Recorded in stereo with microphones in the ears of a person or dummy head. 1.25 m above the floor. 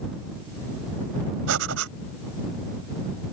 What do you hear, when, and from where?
1.5 s breathing: 80° right